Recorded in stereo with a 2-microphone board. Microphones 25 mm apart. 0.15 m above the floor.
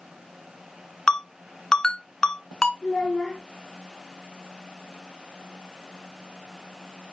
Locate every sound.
1.1 s a ringtone: 30° left (ahead or behind), 0.9 m
2.8 s a child speaking: 35° left (ahead or behind), 5 m